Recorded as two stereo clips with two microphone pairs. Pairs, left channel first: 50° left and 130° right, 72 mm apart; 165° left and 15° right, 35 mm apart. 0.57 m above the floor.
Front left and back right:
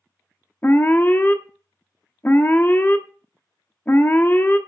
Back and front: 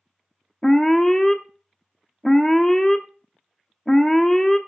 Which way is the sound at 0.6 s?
85° left.